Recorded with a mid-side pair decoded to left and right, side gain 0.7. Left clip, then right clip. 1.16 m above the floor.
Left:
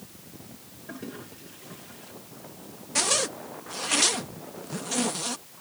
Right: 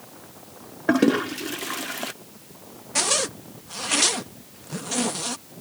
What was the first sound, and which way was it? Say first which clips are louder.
A toilet flushing: right 21 dB; 65° right.